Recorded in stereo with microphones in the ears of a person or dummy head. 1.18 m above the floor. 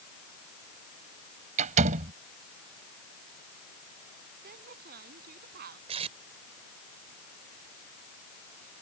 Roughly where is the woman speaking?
Right.